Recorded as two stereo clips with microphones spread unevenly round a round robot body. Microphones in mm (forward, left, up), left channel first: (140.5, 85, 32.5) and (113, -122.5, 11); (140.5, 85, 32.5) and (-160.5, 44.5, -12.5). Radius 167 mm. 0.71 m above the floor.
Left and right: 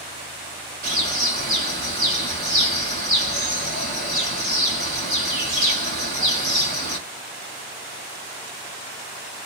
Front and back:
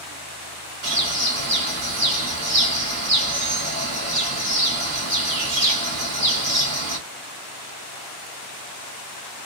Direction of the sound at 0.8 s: 145° right.